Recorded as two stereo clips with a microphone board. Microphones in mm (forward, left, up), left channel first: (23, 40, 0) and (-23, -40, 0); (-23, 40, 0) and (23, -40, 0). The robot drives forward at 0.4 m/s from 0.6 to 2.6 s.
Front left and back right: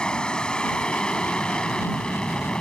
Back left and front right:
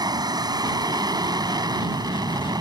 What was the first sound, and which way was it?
An aircraft, 20° right.